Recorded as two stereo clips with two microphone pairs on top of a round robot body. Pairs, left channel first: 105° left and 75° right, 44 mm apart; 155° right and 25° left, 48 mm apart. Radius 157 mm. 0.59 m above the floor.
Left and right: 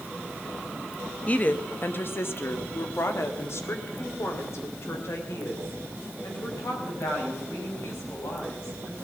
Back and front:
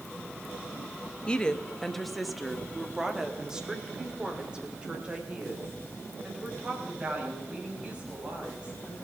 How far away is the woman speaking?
About 1.0 m.